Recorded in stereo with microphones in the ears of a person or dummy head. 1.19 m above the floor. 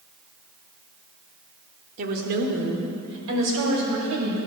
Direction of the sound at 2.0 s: 50° right (ahead or behind).